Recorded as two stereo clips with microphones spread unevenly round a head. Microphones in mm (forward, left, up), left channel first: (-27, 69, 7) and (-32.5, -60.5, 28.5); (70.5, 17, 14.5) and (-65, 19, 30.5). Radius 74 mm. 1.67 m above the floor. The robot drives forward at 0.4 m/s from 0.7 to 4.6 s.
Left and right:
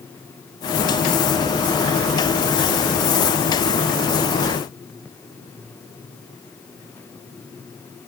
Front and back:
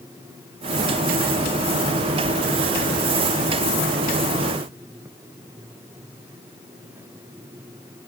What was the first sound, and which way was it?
Only background noise.